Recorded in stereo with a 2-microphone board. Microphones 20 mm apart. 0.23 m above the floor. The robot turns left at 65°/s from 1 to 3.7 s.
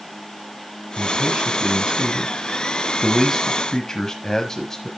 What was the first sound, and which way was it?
A man speaking, 25° right (ahead or behind).